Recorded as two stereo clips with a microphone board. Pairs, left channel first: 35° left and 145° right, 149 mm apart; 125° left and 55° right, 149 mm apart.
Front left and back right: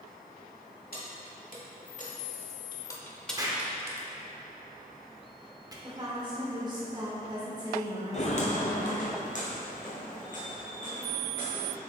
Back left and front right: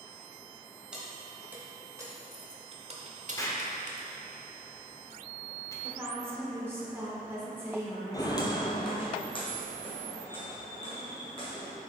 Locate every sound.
0.9 s keys jangling: 30° left, 1.5 m; by 4.1 s 85° right, 1.1 m
3.4 s an explosion: 175° left, 0.8 m
5.8 s a woman speaking: 115° right, 1.4 m
8.1 s footsteps: 65° left, 0.7 m; by 11.7 s 70° left, 3 m